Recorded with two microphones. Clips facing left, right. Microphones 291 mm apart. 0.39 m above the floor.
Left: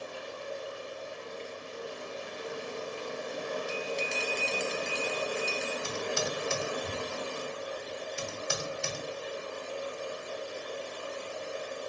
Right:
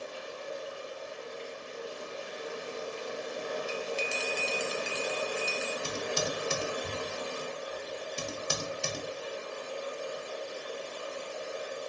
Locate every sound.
0.0 s running water: 60° left (ahead or behind), 1.4 m
3.7 s a bell: 5° right (ahead or behind), 0.5 m
5.8 s typing on a keyboard: 45° right (ahead or behind), 0.6 m